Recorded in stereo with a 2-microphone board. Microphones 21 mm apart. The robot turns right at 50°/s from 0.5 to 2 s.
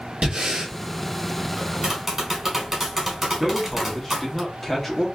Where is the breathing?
45° right (ahead or behind), 1.1 m.